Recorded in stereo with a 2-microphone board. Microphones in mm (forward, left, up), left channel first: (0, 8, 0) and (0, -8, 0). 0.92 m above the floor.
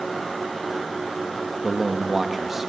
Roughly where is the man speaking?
Centre.